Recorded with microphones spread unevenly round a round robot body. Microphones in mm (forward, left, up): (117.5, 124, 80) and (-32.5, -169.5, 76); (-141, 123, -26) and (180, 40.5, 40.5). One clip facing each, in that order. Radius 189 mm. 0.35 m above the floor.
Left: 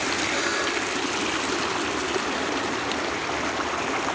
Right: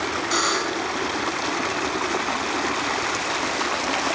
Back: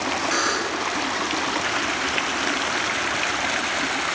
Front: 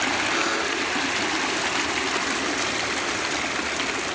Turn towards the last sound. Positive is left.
turn(degrees=-140)